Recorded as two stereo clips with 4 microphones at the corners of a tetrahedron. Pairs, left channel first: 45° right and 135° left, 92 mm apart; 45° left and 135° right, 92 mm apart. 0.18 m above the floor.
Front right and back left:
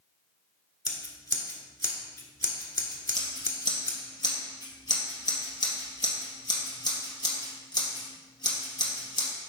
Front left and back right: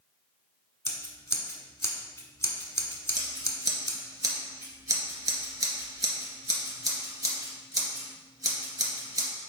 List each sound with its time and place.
0.8 s scissors: 5° right, 1.1 m
3.1 s scissors: 85° right, 2 m